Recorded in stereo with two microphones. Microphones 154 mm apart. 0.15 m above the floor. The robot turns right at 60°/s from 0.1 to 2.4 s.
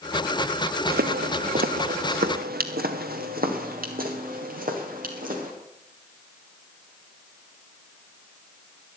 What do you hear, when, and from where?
0.9 s footsteps: 85° right, 1.0 m; by 5.5 s 65° right (ahead or behind), 5 m